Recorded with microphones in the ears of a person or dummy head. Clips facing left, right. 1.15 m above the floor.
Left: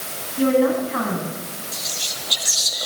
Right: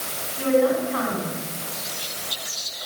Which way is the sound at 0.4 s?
50° left (ahead or behind).